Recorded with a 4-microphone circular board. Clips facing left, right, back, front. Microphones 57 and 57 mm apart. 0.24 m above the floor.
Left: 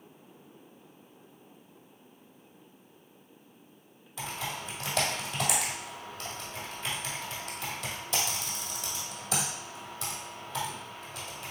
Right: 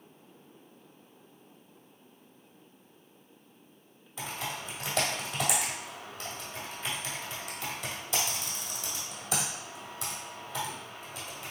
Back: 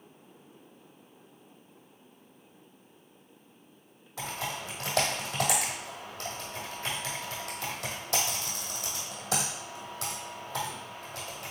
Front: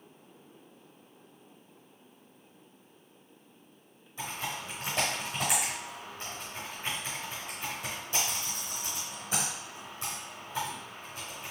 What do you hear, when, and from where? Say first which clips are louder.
4.2 s typing on a keyboard: even, back 1 dB; 175° right, 2 m